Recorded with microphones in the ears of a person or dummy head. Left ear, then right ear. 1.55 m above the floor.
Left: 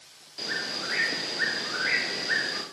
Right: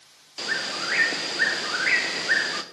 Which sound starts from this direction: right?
A bird, at 0.4 s.